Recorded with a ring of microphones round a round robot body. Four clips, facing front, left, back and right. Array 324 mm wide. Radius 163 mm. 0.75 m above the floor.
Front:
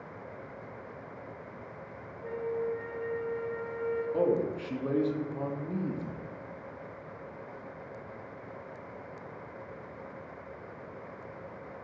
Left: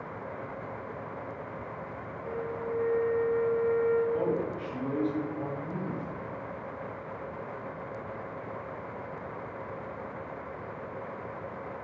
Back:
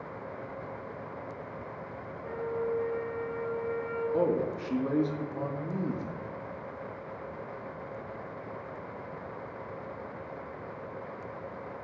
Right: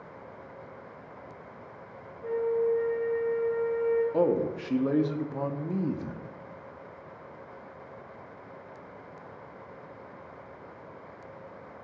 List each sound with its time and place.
2.2 s a flute: 20° right, 2 m
4.1 s a man speaking: 95° right, 0.6 m